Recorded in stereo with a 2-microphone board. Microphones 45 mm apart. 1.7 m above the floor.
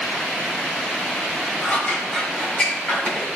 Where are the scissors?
20° left (ahead or behind), 4.5 m.